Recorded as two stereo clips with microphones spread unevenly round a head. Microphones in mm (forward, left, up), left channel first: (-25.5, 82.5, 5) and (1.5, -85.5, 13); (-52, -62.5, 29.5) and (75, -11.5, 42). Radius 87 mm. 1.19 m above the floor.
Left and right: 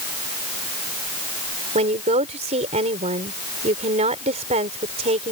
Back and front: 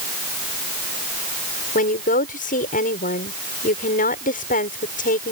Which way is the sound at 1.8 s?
135° right.